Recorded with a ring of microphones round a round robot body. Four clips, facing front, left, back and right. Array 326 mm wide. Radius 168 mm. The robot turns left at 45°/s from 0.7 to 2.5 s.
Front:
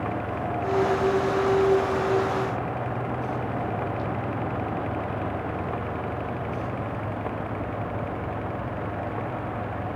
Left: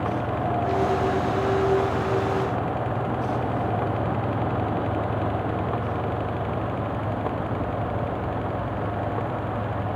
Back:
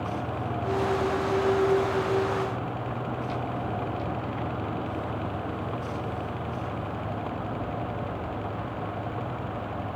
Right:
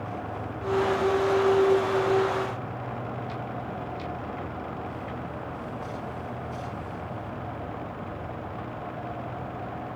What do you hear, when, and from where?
Only background noise.